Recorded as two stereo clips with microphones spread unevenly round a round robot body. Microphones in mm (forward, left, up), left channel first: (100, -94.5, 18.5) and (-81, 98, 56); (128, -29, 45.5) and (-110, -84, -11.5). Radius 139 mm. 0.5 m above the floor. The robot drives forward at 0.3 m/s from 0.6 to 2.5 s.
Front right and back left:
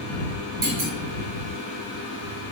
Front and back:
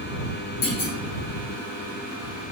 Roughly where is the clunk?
Left.